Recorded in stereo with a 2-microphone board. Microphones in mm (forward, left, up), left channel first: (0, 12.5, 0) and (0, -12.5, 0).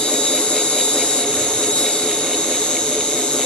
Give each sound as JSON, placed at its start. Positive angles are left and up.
{"t": 0.0, "sound": "an insect", "side_deg": 65, "distance_m": 2.0}